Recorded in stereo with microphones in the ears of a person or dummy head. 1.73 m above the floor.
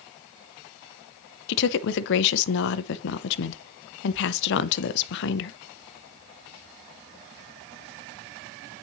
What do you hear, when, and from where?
1.5 s a woman speaking: 65° left (ahead or behind), 0.6 m